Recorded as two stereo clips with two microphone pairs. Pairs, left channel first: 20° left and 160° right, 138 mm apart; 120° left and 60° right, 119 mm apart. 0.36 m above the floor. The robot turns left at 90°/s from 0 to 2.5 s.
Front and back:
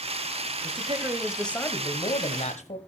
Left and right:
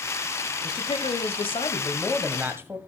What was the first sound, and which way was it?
A man speaking, 175° left.